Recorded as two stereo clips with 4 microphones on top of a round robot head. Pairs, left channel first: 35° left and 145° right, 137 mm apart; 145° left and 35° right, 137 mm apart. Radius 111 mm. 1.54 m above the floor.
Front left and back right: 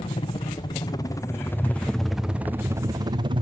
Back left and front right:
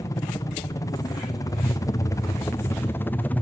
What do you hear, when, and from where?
0.0 s a helicopter: 80° left; by 3.4 s 145° right